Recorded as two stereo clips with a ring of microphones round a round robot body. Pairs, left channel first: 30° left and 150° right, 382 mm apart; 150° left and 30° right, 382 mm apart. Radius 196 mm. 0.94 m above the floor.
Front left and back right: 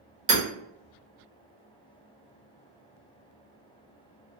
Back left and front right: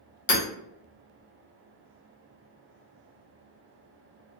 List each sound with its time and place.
0.3 s hammering: 150° left, 1.4 m